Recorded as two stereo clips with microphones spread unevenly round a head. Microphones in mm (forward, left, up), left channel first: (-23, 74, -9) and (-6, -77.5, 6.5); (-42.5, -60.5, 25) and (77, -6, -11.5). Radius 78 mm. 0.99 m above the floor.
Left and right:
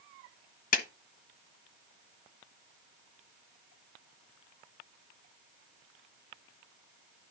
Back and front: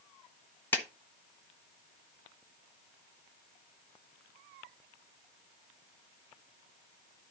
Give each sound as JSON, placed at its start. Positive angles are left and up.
{"t": 0.7, "sound": "a clap", "azimuth_deg": 120, "distance_m": 1.2}